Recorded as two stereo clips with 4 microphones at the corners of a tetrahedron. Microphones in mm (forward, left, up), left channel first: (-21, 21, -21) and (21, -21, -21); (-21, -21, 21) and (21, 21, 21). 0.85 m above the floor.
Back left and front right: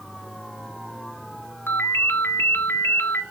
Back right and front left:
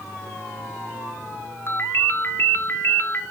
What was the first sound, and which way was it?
A ringtone, straight behind.